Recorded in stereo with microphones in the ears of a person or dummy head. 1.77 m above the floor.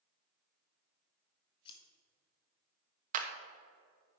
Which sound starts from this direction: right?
A clap, at 3.1 s.